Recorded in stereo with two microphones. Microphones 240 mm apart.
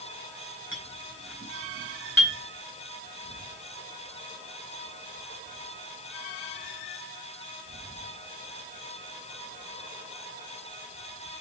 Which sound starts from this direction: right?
A clink, at 0.7 s.